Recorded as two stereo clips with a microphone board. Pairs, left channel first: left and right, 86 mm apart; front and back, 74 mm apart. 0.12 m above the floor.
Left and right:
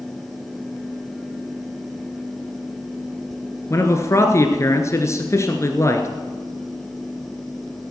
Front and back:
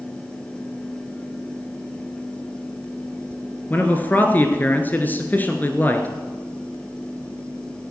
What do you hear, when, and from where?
3.7 s a man speaking: 55° left, 1.4 m